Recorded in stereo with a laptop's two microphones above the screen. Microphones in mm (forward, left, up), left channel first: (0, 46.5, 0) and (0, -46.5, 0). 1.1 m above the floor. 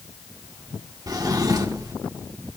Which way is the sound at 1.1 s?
45° right (ahead or behind).